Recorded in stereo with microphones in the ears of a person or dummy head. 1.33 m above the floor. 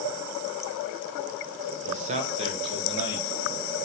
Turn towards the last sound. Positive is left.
turn(degrees=-30)  # may be behind; listen again after turning